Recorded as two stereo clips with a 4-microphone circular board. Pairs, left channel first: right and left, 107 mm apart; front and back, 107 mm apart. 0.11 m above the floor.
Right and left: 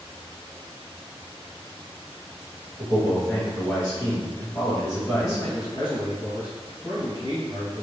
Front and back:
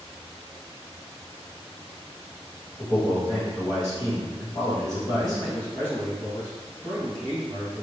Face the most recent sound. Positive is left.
turn(degrees=-65)